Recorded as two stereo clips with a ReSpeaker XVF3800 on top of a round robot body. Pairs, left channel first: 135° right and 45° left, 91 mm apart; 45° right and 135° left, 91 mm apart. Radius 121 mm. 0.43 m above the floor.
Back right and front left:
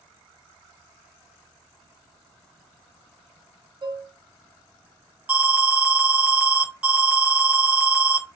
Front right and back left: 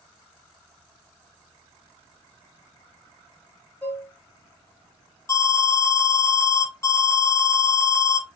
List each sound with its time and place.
3.8 s dishes clattering: 25° left, 0.7 m
5.3 s an alarm: 25° right, 1.1 m